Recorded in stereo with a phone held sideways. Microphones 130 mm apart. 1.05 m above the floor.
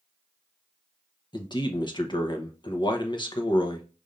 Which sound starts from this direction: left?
A man speaking, at 1.3 s.